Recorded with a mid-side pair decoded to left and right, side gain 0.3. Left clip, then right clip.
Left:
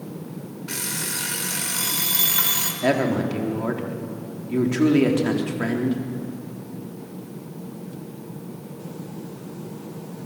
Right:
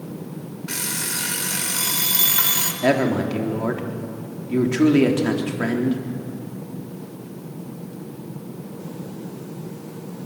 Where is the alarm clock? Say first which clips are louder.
Right 2 dB; 10° right, 3.5 m.